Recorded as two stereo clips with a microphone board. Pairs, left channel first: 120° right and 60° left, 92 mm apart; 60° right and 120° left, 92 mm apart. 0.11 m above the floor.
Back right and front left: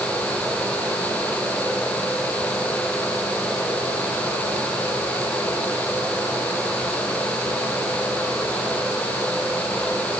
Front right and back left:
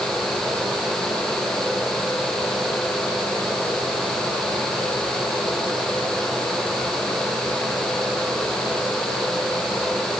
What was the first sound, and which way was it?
Only background noise.